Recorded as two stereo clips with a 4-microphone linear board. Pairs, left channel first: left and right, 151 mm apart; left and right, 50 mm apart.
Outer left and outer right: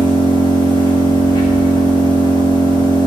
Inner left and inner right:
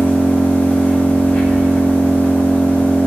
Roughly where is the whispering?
I don't hear whispering.